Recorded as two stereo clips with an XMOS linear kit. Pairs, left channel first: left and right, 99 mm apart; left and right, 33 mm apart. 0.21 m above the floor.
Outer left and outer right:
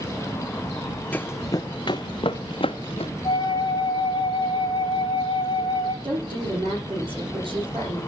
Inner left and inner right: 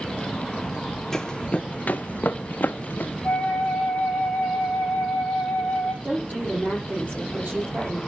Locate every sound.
1.1 s running footsteps: 15° left (ahead or behind), 0.8 m; by 3.1 s 80° left, 1.9 m
3.2 s a flute: 45° left (ahead or behind), 4.5 m
6.0 s a woman speaking: 55° right (ahead or behind), 8 m